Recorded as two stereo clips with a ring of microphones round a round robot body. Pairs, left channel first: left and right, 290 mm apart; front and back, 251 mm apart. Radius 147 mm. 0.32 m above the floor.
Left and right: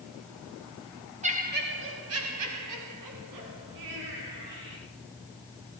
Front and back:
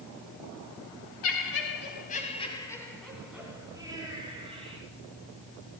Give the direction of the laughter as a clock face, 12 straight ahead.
1 o'clock.